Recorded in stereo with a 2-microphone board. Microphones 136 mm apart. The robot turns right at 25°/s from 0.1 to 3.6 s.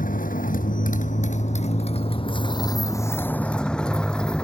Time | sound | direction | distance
0.0 | a motorcycle | 85° left | ?